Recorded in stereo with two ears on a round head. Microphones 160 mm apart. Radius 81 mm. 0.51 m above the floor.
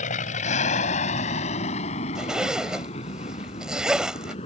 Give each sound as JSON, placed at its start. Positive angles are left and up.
{"t": 0.0, "sound": "an aircraft", "side_deg": 40}
{"t": 2.1, "sound": "a zipper", "side_deg": -5}